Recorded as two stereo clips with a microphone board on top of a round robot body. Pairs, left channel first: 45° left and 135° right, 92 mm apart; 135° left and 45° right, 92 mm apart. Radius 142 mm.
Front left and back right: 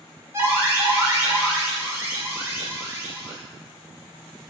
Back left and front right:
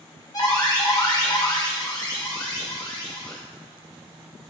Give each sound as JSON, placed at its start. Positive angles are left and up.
{"t": 0.3, "sound": "an alarm", "azimuth_deg": 170, "distance_m": 2.0}